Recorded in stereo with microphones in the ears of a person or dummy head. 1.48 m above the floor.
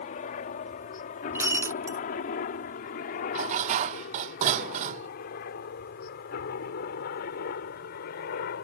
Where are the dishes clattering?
45° right (ahead or behind).